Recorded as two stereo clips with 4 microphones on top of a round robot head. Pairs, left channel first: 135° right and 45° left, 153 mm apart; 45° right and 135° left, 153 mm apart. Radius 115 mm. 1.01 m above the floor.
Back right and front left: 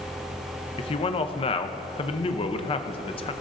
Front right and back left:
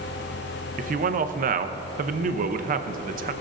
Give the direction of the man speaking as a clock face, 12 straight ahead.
6 o'clock.